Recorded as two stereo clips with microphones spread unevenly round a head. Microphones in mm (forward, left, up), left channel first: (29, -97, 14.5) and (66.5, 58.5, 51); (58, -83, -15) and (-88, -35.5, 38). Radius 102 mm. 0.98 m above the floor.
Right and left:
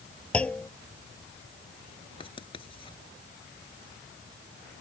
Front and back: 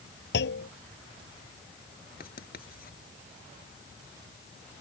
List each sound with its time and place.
0.3 s a clunk: 20° right
2.2 s writing: 45° right